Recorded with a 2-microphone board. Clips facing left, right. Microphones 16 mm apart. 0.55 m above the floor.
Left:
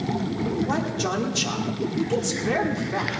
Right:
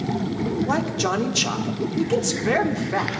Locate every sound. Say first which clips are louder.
0.7 s a man speaking: right 3 dB; 25° right (ahead or behind), 1.2 m